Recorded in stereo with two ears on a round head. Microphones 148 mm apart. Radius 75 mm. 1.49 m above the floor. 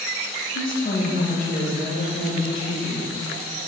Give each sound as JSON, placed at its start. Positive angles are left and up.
{"t": 0.6, "sound": "a woman speaking", "side_deg": 55, "distance_m": 1.0}